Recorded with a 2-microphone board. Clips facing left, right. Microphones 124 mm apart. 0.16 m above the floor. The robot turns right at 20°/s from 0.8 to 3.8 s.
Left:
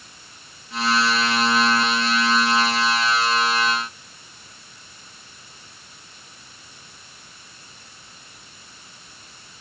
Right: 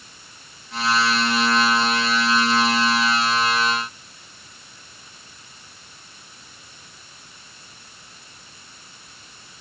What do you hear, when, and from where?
Only background noise.